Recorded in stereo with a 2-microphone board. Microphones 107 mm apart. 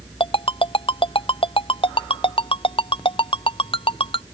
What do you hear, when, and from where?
0.2 s a ringtone: 50° left (ahead or behind)